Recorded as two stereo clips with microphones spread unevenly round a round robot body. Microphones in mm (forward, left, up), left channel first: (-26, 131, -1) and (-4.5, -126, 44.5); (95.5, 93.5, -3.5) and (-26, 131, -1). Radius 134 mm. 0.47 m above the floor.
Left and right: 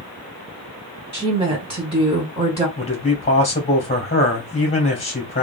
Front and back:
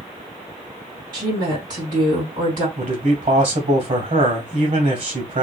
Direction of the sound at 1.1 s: 160° right.